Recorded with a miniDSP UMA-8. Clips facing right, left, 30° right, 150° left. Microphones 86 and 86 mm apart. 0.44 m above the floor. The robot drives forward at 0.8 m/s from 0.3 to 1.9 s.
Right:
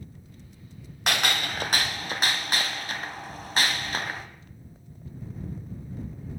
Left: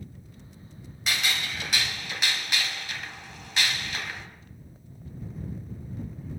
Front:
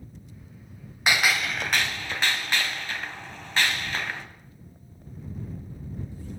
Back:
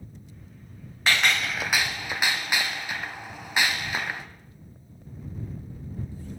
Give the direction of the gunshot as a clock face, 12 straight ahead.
3 o'clock.